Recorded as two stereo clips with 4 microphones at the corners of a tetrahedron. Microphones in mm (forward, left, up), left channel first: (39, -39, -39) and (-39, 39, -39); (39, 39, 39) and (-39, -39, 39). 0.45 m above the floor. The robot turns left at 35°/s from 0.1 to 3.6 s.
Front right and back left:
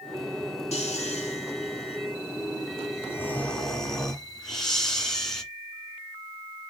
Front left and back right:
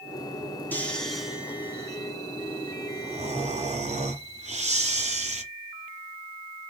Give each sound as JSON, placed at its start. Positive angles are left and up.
{"t": 0.7, "sound": "snoring", "azimuth_deg": -30, "distance_m": 1.7}